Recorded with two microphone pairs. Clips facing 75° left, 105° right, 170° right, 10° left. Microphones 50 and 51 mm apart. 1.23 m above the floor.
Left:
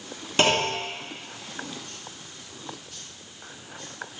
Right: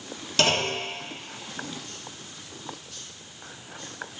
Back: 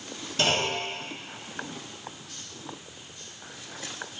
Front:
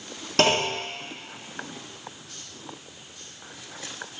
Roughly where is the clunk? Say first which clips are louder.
Left 2 dB, front 4 dB; ahead.